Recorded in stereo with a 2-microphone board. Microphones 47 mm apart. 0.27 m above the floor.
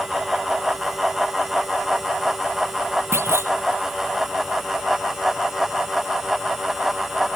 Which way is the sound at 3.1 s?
70° right (ahead or behind).